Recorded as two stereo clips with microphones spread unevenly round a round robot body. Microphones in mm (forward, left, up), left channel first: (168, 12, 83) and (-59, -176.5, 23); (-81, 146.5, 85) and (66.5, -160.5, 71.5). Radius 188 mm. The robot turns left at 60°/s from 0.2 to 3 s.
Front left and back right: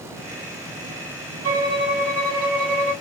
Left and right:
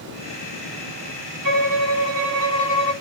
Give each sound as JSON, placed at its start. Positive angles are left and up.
{"t": 1.4, "sound": "a violin", "azimuth_deg": -100, "distance_m": 3.5}